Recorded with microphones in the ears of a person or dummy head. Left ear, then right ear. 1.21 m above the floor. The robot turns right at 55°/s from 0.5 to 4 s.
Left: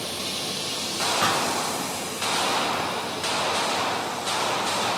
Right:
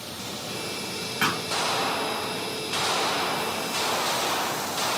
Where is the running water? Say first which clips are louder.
Left 6 dB; 50° left, 2.5 m; by 5.0 s 120° right, 2.5 m.